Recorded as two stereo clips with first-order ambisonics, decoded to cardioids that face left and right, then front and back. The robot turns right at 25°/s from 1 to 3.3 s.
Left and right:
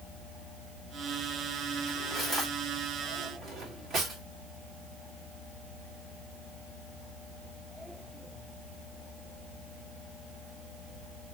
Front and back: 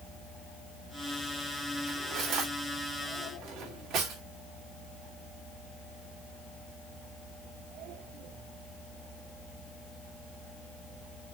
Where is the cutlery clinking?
175° left, 1.9 m; by 4.2 s 150° right, 1.9 m.